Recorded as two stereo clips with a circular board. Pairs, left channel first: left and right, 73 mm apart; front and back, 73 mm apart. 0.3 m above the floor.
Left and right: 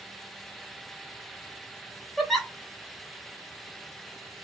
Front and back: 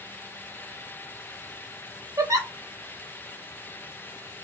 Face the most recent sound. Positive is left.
turn(degrees=175)